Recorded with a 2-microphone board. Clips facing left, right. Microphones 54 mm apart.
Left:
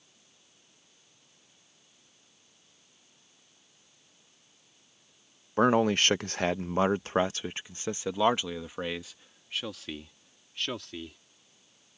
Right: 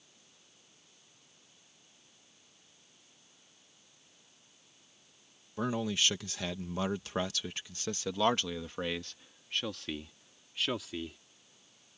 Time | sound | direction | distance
5.6 | a man speaking | 55° left (ahead or behind) | ?